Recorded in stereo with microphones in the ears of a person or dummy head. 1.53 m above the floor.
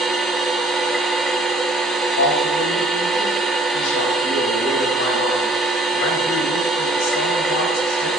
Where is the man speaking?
75° left (ahead or behind), 4 m.